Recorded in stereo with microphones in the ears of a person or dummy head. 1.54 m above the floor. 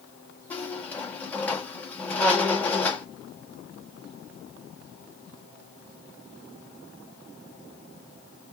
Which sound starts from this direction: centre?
A squeak, at 0.5 s.